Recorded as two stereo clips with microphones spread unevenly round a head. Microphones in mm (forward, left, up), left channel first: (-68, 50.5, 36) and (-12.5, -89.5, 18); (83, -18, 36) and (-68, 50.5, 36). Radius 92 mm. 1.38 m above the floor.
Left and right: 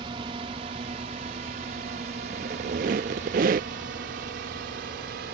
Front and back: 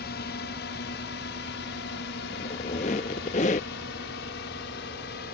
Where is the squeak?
60° right.